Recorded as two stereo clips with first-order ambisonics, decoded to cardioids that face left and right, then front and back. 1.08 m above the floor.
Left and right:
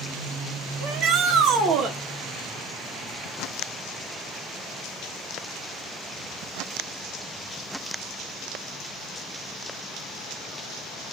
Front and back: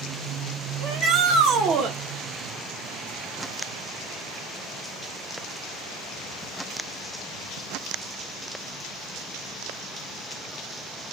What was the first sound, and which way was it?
A shout, 130° right.